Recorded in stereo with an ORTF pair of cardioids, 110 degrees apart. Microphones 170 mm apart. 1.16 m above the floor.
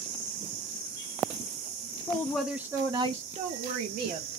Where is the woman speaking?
20° left, 0.6 m; by 4.3 s 65° right, 1.2 m.